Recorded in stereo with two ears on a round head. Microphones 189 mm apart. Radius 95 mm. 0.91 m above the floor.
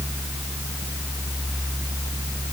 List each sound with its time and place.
Only background noise.